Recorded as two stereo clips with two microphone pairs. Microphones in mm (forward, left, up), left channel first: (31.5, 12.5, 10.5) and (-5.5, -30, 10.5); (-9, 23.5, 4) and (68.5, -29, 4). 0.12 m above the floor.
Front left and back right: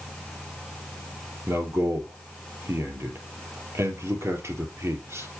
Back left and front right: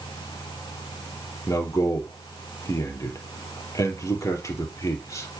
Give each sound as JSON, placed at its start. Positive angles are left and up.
{"t": 1.5, "sound": "a man speaking", "azimuth_deg": -160, "distance_m": 3.0}